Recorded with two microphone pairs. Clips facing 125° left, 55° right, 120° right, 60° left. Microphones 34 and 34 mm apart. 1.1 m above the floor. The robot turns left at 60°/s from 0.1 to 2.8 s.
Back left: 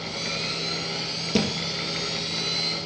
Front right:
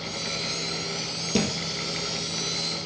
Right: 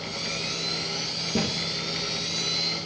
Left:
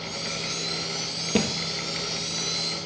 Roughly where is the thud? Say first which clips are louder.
Back left 1 dB, left 3 dB; ahead left.